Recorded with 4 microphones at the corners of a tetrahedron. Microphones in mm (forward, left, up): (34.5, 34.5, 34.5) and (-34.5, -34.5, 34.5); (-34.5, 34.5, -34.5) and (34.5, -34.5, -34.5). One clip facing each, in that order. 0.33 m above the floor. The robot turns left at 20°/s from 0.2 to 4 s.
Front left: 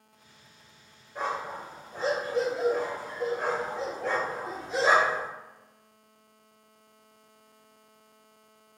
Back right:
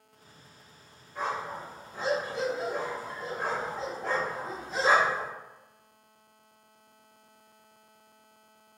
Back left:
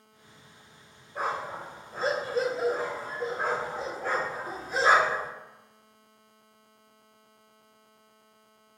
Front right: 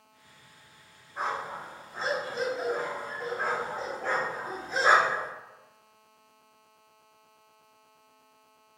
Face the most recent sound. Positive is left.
turn(degrees=55)